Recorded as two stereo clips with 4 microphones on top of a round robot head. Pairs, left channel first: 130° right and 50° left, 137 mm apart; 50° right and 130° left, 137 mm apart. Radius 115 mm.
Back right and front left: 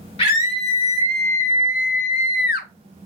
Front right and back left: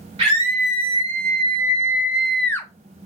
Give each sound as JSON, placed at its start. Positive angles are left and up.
{"t": 0.2, "sound": "a scream", "azimuth_deg": 180, "distance_m": 1.7}